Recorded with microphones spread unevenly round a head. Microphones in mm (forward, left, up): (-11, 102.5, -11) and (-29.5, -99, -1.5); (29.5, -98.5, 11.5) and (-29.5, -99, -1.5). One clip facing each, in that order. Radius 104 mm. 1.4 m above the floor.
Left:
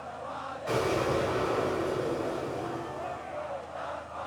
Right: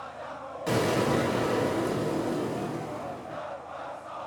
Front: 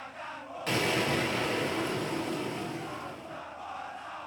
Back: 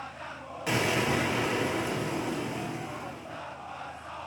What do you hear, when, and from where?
0.7 s an explosion: 100° right, 2.5 m